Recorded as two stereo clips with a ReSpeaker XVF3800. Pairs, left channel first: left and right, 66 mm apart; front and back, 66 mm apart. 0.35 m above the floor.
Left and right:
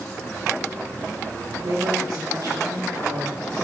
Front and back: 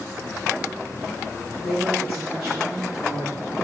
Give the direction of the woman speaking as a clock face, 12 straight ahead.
3 o'clock.